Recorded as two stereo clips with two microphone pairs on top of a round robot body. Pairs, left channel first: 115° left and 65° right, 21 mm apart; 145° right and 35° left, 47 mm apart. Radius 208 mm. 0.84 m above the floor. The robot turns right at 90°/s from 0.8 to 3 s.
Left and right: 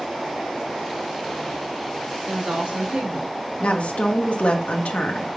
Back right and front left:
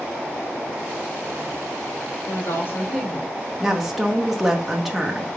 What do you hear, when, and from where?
2.3 s a woman speaking: 130° right, 1.6 m; by 3.4 s 65° right, 1.6 m
3.6 s a woman speaking: 120° left, 0.9 m